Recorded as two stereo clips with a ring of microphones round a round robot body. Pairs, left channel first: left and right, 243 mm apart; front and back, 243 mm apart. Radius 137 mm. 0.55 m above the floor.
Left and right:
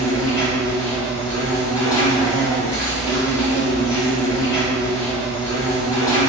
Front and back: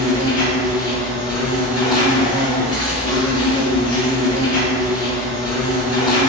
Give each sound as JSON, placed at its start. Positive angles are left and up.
{"t": 0.0, "sound": "an insect", "azimuth_deg": 40, "distance_m": 1.0}